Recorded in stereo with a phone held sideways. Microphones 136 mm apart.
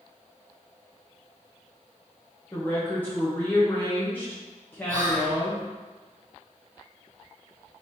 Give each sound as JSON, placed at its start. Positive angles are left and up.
{"t": 2.5, "sound": "a woman speaking", "side_deg": 15, "distance_m": 0.8}
{"t": 4.9, "sound": "whispering", "side_deg": -70, "distance_m": 1.3}